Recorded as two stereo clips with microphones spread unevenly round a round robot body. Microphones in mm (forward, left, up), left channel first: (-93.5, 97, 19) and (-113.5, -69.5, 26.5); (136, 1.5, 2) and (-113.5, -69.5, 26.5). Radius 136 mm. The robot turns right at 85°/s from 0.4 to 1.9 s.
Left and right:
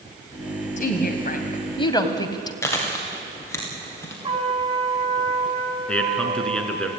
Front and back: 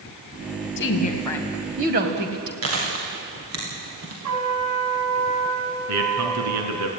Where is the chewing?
155° left, 7.5 m.